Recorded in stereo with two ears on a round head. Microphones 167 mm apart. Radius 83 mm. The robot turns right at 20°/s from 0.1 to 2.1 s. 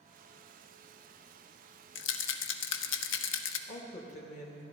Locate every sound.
1.9 s a rattle: 70° left (ahead or behind), 0.6 m; by 3.6 s 75° left (ahead or behind), 0.6 m
3.7 s a woman speaking: 40° left (ahead or behind), 1.6 m